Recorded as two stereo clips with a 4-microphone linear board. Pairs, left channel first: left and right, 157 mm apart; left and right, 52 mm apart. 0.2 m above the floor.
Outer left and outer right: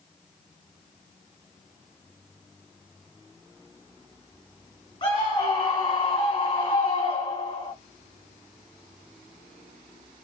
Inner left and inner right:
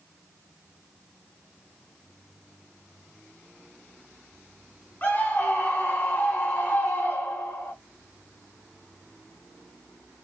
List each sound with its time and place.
5.0 s a scream: 35° left (ahead or behind), 1.5 m